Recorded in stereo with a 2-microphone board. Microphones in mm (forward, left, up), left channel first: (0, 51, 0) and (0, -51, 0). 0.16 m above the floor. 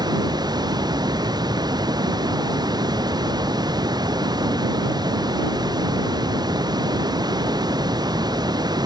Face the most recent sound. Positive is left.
turn(degrees=-40)  # may be behind; listen again after turning